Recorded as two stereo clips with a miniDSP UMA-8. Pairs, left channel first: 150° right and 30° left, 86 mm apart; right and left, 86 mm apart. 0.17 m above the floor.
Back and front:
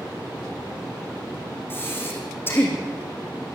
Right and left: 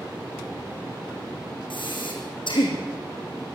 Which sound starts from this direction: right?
Breathing, at 1.7 s.